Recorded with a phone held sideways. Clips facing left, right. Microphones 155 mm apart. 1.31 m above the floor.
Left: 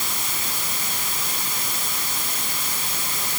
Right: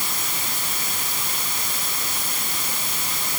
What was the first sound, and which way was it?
Only background noise.